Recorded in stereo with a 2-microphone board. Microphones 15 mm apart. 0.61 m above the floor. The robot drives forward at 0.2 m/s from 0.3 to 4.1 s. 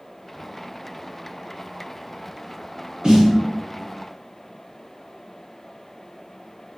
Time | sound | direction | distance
3.0 | a snare drum | 60° right (ahead or behind) | 2.0 m